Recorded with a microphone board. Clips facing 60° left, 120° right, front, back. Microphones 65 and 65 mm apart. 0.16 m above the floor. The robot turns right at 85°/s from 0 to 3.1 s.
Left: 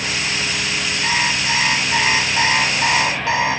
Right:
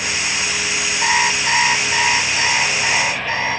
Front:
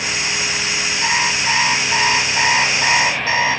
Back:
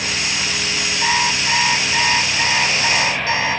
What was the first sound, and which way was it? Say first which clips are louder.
An alarm clock: right 4 dB, even; 110° right.